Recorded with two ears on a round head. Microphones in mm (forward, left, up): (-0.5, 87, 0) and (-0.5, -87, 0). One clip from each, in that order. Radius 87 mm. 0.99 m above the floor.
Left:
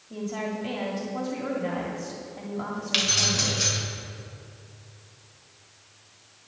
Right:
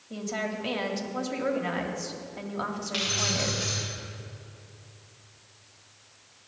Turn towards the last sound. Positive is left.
turn(degrees=85)